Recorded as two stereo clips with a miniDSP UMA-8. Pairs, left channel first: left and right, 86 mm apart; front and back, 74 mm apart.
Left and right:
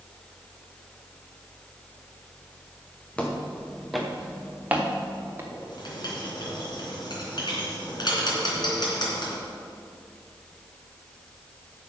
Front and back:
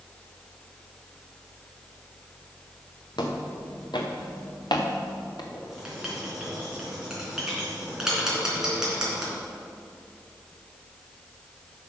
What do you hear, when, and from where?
3.2 s footsteps: 15° left, 1.8 m; by 5.4 s 25° right, 2.0 m
5.5 s writing: 100° left, 3 m